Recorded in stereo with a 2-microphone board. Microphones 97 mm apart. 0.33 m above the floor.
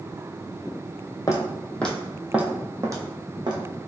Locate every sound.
1.3 s footsteps: 30° left (ahead or behind), 0.8 m; by 3.6 s 50° right (ahead or behind), 1.1 m